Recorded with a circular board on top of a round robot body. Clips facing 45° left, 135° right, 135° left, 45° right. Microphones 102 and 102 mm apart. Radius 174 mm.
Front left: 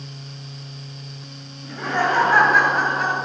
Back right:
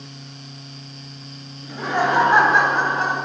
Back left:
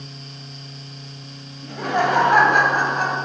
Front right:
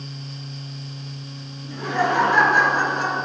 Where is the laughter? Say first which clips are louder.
Back right 1 dB, back left 2 dB; 145° left, 3 m; by 3.2 s 165° left, 3.5 m.